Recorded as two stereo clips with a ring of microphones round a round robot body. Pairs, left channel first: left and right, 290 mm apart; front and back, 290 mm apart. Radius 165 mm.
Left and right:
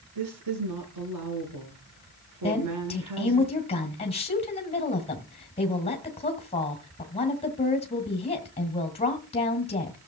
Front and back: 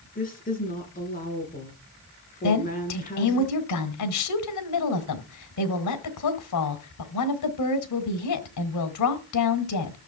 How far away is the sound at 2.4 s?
About 2.5 m.